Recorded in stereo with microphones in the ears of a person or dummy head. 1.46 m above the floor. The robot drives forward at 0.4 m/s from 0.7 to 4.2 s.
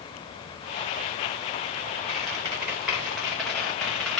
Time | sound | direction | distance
2.1 | a squeak | 5° right (ahead or behind) | 0.6 m